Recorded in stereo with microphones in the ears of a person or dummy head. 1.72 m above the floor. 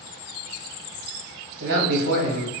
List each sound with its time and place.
1.6 s a man speaking: 60° right (ahead or behind), 1.2 m